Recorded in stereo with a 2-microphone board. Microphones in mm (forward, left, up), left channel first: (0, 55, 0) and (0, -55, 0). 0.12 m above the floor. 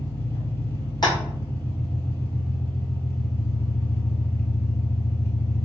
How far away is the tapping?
About 1.3 m.